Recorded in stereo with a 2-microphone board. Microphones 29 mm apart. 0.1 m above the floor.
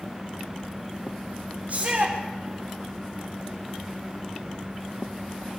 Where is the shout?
50° right (ahead or behind), 7.5 m.